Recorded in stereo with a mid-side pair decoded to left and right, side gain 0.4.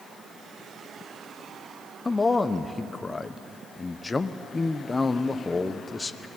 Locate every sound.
2.0 s a man speaking: 30° left, 1.1 m